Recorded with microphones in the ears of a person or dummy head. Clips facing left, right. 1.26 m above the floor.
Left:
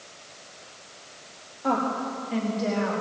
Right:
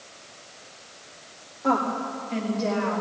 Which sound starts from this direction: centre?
A woman speaking, at 1.6 s.